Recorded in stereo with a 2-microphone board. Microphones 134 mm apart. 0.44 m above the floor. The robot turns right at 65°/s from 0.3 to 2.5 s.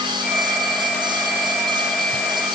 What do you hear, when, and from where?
Only background noise.